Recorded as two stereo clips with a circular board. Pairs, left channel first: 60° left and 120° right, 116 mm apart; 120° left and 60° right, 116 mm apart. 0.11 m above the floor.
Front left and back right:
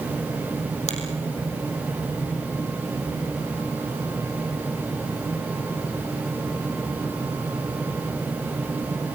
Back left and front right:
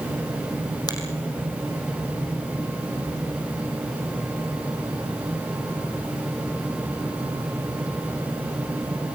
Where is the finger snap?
70° left, 5 m.